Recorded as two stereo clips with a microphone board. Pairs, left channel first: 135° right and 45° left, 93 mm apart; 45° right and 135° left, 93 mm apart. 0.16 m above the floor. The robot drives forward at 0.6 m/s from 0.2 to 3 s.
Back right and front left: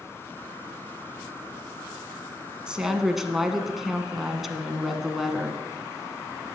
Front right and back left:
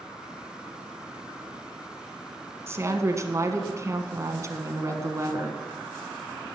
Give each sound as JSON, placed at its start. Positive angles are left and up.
{"t": 2.7, "sound": "a woman speaking", "azimuth_deg": 115, "distance_m": 1.2}